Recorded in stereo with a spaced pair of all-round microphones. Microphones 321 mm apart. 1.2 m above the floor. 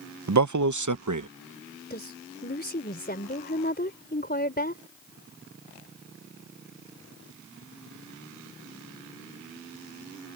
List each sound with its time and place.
0.3 s a man speaking: 60° right (ahead or behind); by 1.3 s 65° right (ahead or behind)
1.9 s a woman speaking: 30° left (ahead or behind)